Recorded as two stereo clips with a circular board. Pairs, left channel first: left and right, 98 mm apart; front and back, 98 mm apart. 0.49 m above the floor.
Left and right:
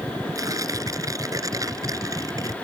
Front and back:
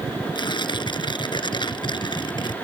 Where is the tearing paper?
35° right.